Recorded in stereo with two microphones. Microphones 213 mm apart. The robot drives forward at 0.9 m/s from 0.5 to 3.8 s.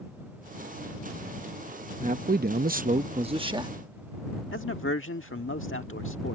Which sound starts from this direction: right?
A man speaking, at 2.0 s.